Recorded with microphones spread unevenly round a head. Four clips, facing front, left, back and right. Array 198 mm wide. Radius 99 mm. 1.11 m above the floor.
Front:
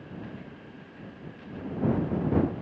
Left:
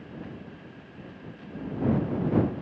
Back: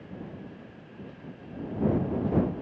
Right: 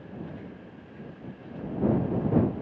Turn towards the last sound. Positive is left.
No sound to turn to.